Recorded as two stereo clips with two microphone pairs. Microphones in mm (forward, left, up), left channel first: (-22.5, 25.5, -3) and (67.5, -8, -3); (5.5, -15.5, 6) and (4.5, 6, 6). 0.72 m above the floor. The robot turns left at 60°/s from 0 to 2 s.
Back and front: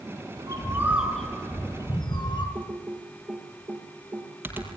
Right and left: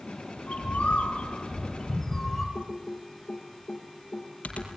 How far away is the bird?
About 5 m.